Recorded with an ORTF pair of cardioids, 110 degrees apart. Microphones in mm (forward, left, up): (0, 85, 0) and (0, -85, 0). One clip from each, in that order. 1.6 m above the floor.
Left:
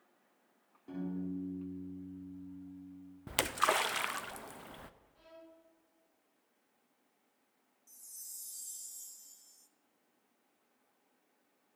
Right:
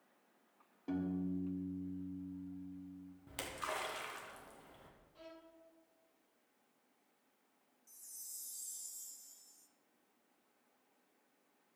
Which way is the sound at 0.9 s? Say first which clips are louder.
Right 1 dB; 45° right.